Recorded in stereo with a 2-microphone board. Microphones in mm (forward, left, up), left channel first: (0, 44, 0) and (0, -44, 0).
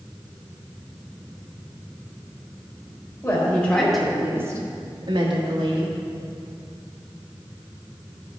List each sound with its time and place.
3.2 s a woman speaking: 25° left (ahead or behind), 2 m; by 5.9 s 80° right, 2.5 m